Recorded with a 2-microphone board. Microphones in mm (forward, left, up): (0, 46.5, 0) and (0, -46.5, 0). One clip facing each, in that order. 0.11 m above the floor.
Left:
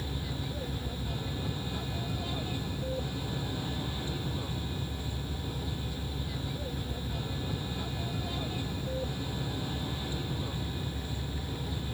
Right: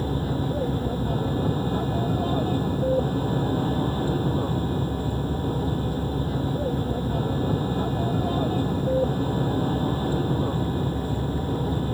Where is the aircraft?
45° right (ahead or behind).